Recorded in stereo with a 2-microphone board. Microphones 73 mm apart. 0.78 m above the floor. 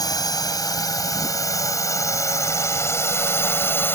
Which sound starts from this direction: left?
A drone, at 0.0 s.